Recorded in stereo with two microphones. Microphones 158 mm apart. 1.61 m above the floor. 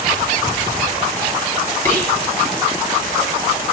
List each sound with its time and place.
1.9 s whispering: 20° left (ahead or behind), 1.6 m